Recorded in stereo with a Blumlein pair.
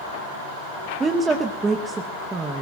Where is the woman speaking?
15° right, 1.0 m.